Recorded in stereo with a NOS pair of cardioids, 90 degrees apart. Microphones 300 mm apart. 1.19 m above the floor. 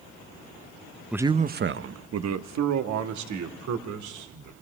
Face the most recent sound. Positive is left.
turn(degrees=-80)